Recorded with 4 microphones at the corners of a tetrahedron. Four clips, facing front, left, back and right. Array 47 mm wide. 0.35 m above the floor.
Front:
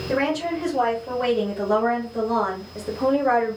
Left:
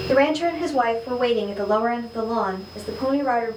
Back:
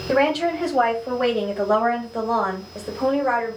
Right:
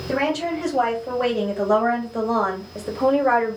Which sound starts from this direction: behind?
A woman speaking, at 0.1 s.